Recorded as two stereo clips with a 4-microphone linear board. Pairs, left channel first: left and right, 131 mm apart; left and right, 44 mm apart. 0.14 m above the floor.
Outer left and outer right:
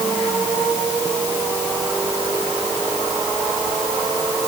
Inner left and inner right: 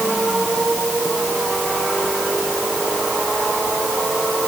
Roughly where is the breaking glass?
No breaking glass in this recording.